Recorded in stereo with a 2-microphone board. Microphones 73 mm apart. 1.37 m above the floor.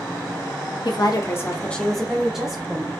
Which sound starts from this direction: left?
A woman speaking, at 0.8 s.